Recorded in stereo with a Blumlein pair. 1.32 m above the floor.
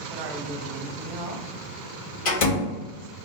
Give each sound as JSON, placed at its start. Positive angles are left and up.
{"t": 0.1, "sound": "a man speaking", "azimuth_deg": -40, "distance_m": 0.7}
{"t": 2.2, "sound": "a door slam", "azimuth_deg": 50, "distance_m": 1.6}